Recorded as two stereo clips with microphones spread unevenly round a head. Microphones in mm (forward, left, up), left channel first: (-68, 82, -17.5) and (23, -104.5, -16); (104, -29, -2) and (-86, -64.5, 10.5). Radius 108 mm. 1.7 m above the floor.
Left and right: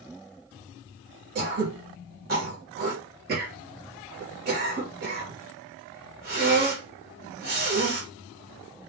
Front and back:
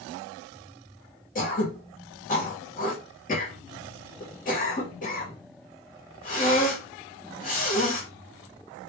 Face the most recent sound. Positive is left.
turn(degrees=-30)